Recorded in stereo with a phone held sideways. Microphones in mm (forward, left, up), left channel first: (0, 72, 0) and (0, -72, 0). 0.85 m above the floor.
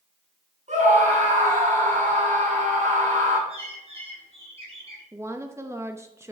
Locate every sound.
0.7 s a scream: 55° right (ahead or behind), 7.5 m
3.5 s a bird: 45° right (ahead or behind), 5 m
5.1 s a woman speaking: 20° right (ahead or behind), 1.0 m